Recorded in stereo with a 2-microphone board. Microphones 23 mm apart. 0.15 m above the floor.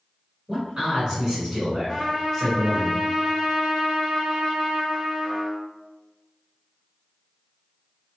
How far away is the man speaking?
About 1.5 m.